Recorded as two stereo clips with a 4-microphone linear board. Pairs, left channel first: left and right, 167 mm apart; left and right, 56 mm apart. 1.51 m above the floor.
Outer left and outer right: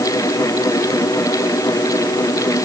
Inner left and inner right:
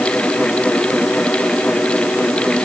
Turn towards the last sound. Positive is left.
No sound to turn to.